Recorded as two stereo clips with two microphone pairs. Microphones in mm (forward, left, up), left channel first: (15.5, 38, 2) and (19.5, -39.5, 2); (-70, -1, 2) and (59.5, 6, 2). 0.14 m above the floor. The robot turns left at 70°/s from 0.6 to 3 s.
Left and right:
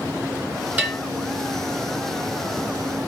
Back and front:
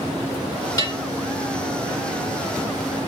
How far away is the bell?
About 1.5 m.